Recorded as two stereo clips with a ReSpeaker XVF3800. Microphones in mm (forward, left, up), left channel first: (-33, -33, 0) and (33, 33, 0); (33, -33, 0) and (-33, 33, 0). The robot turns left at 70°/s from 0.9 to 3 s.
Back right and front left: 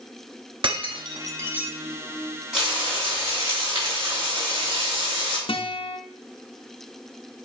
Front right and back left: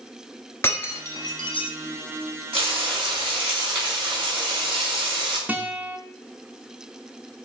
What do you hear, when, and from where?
0.6 s breaking glass: 20° left, 1.2 m; by 1.7 s 40° right, 1.2 m
2.5 s frying: 135° left, 4 m; by 5.4 s 100° left, 4 m
5.5 s a guitar: 150° right, 0.7 m